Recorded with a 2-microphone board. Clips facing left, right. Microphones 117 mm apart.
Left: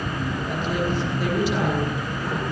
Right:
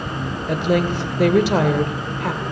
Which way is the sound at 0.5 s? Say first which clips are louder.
Right 8 dB; 80° right.